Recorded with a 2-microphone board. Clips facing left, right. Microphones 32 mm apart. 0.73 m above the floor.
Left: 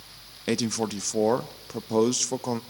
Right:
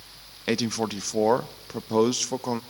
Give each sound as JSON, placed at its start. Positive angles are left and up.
{"t": 0.5, "sound": "a man speaking", "side_deg": -25, "distance_m": 0.5}